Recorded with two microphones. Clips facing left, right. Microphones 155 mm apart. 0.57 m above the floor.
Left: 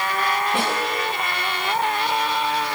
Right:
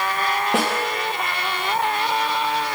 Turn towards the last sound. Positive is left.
turn(degrees=-85)